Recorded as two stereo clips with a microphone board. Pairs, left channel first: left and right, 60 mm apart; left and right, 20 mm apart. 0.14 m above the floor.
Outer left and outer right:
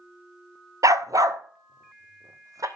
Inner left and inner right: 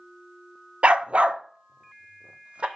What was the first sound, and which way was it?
A dog barking, 70° right (ahead or behind).